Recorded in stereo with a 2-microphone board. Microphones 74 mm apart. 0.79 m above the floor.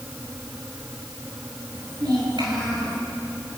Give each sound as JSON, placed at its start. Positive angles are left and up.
{"t": 1.7, "sound": "a child speaking", "side_deg": -75, "distance_m": 8.5}